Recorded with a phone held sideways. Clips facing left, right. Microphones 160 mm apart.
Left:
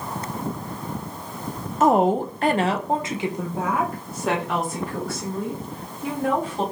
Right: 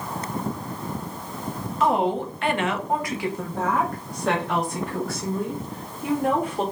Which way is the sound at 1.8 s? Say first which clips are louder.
Left 4 dB; 50° left (ahead or behind).